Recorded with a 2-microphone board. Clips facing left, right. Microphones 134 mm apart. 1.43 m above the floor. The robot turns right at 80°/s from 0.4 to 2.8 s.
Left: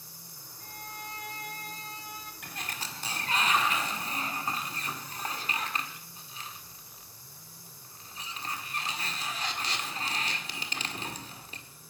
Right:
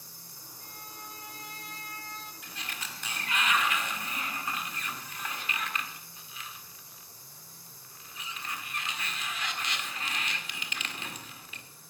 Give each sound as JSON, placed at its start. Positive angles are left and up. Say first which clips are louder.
{"t": 0.6, "sound": "a violin", "louder": "left 5 dB", "azimuth_deg": 45, "distance_m": 1.6}
{"t": 2.4, "sound": "a sliding door", "louder": "left 6 dB", "side_deg": 60, "distance_m": 1.8}